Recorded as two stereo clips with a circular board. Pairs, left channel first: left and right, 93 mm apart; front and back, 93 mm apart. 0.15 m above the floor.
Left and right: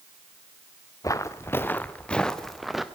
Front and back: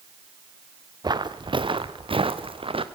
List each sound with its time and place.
1.0 s footsteps: 140° left, 1.1 m; by 2.8 s 175° right, 1.5 m